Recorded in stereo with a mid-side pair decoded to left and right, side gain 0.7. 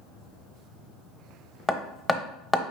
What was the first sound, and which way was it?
Hammering, 10° left.